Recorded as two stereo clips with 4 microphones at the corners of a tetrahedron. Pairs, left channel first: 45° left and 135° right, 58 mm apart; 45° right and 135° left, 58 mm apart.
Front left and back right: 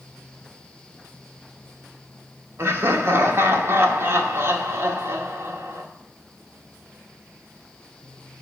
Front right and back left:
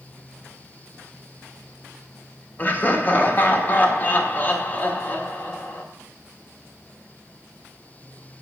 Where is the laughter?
100° right, 1.1 m.